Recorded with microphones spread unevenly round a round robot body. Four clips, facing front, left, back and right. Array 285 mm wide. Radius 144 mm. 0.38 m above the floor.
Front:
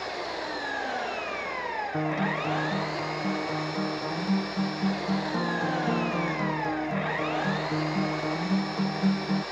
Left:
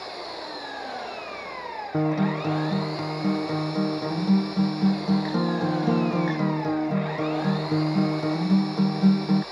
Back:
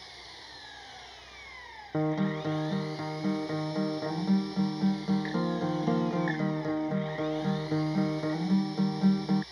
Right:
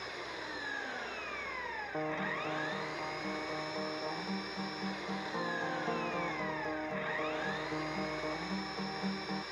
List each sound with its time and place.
0.0 s an engine running: 20° left
1.9 s a guitar: 90° left